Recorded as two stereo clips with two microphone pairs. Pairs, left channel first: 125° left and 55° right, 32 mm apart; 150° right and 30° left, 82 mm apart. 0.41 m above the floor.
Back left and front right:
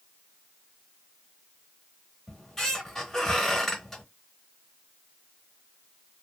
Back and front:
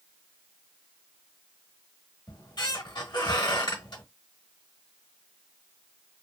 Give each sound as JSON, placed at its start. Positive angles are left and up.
{"t": 2.3, "sound": "a squeak", "azimuth_deg": -165, "distance_m": 1.0}